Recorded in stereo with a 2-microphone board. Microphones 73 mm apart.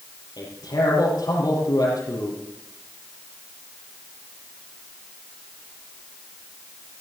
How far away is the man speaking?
About 6 m.